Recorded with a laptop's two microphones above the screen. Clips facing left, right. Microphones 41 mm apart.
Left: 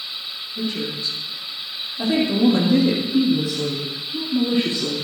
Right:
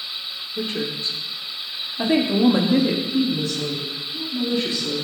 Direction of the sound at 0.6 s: 60° right (ahead or behind).